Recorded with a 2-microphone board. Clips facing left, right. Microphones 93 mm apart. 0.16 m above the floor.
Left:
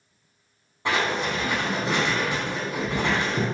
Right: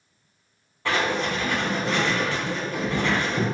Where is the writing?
20° left (ahead or behind), 0.7 m.